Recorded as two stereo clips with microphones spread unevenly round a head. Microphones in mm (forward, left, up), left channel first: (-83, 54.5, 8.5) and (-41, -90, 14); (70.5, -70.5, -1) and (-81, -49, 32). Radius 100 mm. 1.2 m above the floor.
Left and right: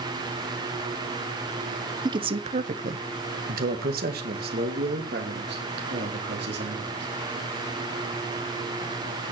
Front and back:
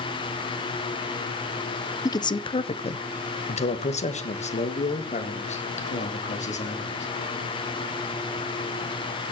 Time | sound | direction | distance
2.0 | a man speaking | 25° right | 0.7 m